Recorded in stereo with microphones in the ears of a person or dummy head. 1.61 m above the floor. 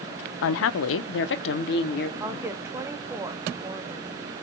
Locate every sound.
0.4 s a woman speaking: 65° left (ahead or behind), 0.7 m; by 2.1 s 55° left (ahead or behind), 1.3 m
2.2 s a woman speaking: 15° right (ahead or behind), 1.2 m